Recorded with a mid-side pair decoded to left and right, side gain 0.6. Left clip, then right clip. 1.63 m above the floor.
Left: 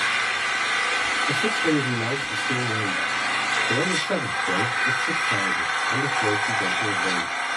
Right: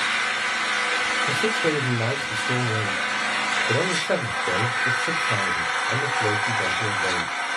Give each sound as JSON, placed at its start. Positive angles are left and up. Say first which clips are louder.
{"t": 0.0, "sound": "an engine running", "louder": "even", "azimuth_deg": 0, "distance_m": 1.0}
{"t": 1.3, "sound": "a man speaking", "louder": "even", "azimuth_deg": -55, "distance_m": 1.5}